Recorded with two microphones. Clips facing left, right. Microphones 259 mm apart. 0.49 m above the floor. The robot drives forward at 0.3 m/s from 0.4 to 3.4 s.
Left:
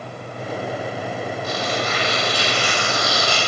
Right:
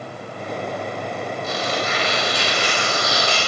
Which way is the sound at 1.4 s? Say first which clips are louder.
Even; 25° right (ahead or behind).